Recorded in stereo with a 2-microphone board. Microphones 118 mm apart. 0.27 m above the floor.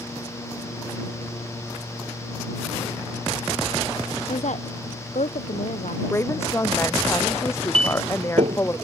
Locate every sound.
4.3 s a woman speaking: 80° left; by 6.9 s 85° left
6.1 s a woman speaking: 20° left (ahead or behind)
7.7 s a clink: 55° right (ahead or behind)